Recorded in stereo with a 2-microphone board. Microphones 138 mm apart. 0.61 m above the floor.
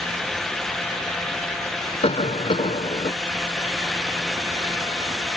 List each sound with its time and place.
2.0 s a cough: 55° left (ahead or behind)